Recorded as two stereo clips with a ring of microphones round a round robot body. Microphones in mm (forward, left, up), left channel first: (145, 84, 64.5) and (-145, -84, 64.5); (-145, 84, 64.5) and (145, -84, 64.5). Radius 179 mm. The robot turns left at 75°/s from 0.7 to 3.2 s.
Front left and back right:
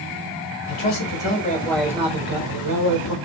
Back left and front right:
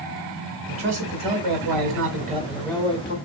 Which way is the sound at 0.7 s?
25° left.